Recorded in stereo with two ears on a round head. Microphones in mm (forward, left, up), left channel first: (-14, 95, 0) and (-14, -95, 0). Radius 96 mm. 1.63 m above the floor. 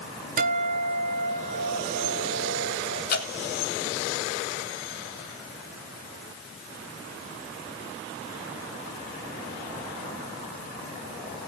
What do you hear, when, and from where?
0.4 s a guitar: 50° right (ahead or behind), 1.8 m
3.1 s dripping: 50° left (ahead or behind), 3.5 m